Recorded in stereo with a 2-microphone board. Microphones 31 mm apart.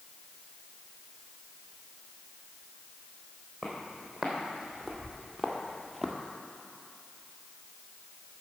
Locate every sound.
3.6 s footsteps: 5° right (ahead or behind), 3 m; by 6.2 s 10° left (ahead or behind), 1.2 m